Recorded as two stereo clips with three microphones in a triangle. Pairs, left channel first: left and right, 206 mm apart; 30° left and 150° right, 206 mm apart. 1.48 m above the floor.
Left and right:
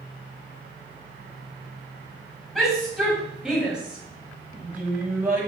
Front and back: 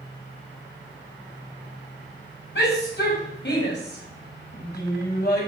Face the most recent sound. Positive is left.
turn(degrees=-10)